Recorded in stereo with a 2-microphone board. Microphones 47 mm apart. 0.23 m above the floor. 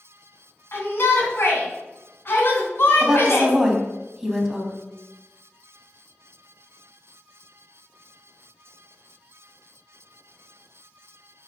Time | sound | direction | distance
0.7 | a shout | 55° left (ahead or behind) | 2.5 m
3.0 | a woman speaking | 10° right (ahead or behind) | 1.3 m